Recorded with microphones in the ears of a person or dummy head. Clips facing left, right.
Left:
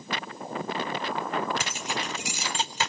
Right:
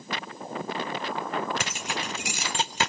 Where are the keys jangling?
45° right (ahead or behind), 0.6 m.